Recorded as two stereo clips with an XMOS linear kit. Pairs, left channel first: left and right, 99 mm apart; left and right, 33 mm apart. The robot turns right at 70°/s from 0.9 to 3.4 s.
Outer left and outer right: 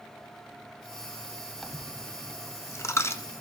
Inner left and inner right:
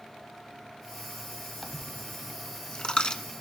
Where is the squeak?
I don't hear a squeak.